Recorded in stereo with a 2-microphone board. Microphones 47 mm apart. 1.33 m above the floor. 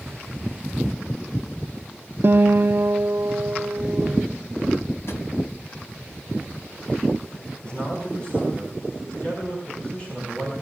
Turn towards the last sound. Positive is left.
turn(degrees=30)  # may be behind; listen again after turning